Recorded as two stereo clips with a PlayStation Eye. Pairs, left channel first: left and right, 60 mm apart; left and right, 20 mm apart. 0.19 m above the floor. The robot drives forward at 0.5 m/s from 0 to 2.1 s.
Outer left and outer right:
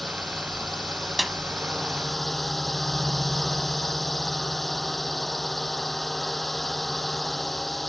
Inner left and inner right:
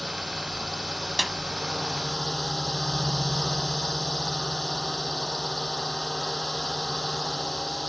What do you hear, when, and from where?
0.0 s a drone: centre (ahead or behind)
1.2 s a snare drum: centre (ahead or behind)